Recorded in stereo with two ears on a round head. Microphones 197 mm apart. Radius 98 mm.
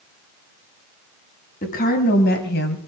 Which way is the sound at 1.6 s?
40° left (ahead or behind).